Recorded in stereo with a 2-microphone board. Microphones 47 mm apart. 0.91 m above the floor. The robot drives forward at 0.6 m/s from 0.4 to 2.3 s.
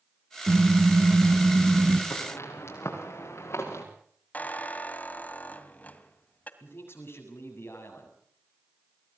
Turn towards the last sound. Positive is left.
turn(degrees=55)  # may be behind; listen again after turning